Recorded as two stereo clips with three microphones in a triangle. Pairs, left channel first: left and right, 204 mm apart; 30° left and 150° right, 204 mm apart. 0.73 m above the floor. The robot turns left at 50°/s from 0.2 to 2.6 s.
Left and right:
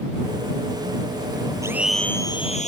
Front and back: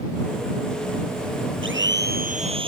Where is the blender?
165° right; by 2.7 s 145° left.